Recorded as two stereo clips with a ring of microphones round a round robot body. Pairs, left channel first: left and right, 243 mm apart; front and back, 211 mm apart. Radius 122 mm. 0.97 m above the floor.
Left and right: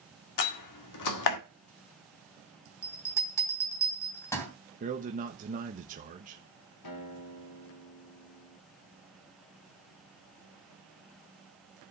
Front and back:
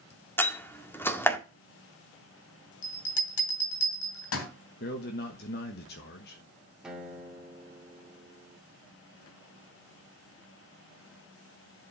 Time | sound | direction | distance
0.4 | a door slam | 80° left | 1.7 m
2.8 | a bell | 10° left | 3 m
4.8 | a man speaking | 35° right | 1.2 m
6.8 | a guitar | 95° left | 2 m